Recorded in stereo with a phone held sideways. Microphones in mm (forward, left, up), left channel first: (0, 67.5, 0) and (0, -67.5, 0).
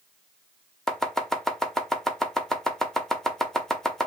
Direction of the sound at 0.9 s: 5° left (ahead or behind).